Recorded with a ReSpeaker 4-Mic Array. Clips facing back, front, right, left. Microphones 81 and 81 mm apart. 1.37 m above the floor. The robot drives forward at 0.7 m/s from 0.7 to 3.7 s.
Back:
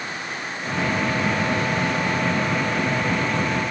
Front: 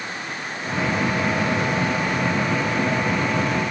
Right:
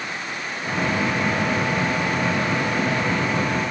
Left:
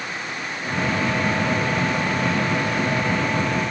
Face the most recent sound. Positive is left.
No sound to turn to.